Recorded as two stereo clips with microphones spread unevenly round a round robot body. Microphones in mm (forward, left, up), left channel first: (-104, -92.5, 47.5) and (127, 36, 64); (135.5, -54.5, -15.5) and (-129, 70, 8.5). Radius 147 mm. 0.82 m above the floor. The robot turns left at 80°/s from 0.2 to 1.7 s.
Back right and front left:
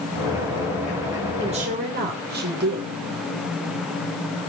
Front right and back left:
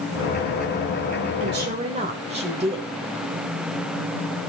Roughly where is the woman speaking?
Left.